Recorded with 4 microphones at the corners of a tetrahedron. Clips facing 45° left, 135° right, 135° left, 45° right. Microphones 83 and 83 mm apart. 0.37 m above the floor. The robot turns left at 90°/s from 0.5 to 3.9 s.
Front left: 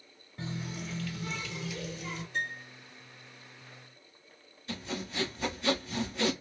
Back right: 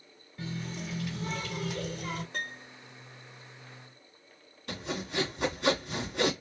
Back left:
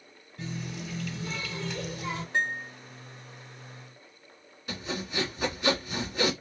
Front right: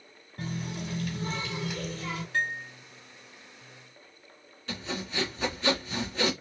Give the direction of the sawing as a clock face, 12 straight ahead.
5 o'clock.